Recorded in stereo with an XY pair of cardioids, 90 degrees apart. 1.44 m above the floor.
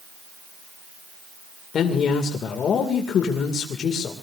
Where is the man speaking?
65° left, 2 m.